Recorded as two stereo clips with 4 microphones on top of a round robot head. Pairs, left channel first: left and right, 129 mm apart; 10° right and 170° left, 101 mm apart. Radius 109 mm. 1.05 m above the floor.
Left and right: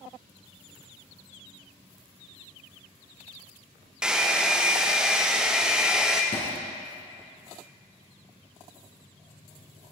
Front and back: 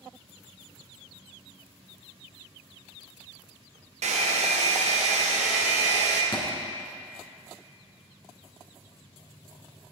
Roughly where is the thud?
Ahead left.